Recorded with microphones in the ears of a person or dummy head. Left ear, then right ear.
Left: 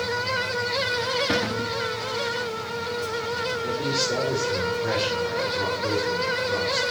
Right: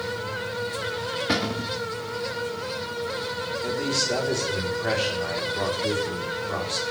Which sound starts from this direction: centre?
A cupboard door, at 1.3 s.